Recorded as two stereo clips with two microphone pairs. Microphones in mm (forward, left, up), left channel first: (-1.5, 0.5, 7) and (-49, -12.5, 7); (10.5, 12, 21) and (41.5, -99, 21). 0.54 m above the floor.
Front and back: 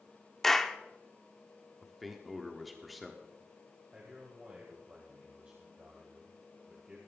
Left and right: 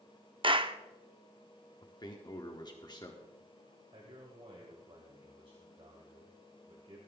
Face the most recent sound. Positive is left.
turn(degrees=-110)